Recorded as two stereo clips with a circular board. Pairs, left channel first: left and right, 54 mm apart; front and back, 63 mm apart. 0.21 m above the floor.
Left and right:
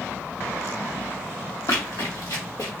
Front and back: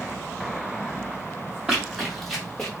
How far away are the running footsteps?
About 1.1 m.